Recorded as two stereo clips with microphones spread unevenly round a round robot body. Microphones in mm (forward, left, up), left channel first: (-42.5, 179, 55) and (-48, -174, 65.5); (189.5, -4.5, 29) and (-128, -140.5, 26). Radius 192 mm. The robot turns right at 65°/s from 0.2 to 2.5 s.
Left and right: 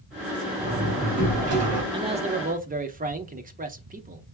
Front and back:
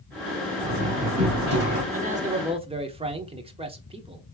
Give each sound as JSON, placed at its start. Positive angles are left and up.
{"t": 0.6, "sound": "a door slam", "azimuth_deg": -170, "distance_m": 2.5}
{"t": 1.9, "sound": "a man speaking", "azimuth_deg": -150, "distance_m": 0.8}